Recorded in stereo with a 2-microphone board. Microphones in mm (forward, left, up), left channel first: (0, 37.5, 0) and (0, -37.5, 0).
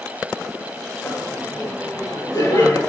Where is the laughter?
35° left (ahead or behind), 2.5 m; by 2.8 s 50° left (ahead or behind), 3 m.